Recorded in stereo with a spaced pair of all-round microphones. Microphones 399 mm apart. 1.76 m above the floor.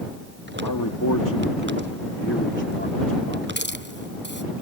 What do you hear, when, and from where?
0.6 s a man speaking: 60° left (ahead or behind); by 3.5 s 15° left (ahead or behind)
3.6 s a hiss: 25° left (ahead or behind)